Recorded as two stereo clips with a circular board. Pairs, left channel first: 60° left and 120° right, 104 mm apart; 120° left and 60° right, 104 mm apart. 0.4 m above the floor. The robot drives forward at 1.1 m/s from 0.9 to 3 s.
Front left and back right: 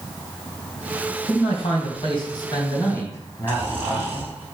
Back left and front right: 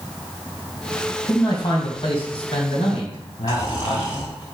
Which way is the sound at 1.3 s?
65° left.